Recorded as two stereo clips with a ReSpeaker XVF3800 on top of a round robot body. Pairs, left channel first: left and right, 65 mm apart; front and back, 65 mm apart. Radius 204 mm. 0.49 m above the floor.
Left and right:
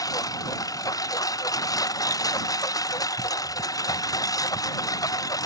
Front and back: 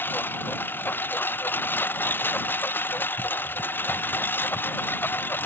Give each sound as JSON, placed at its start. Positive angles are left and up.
{"t": 0.0, "sound": "a lawn mower", "azimuth_deg": 60}